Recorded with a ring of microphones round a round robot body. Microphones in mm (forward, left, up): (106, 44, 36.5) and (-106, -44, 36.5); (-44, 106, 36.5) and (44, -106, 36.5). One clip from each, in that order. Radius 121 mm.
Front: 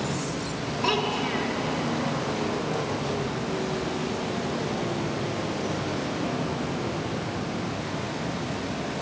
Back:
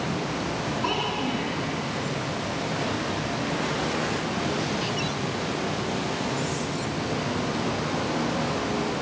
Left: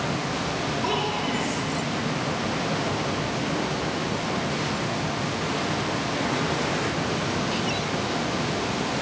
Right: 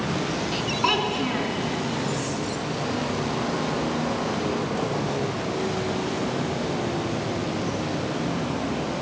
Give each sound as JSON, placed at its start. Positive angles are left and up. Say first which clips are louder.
{"t": 0.8, "sound": "a child speaking", "louder": "front 3 dB, right 4 dB", "azimuth_deg": -40, "distance_m": 3.0}